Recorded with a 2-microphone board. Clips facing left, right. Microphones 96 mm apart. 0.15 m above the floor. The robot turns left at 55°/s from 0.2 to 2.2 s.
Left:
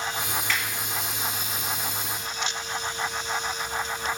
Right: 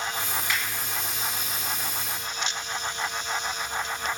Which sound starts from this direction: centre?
A finger snap, at 0.5 s.